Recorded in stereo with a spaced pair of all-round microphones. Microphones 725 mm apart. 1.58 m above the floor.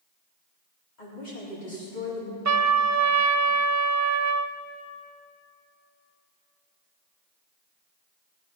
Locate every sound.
1.0 s a woman speaking: 85° left, 4 m
2.5 s a trumpet: 25° right (ahead or behind), 0.5 m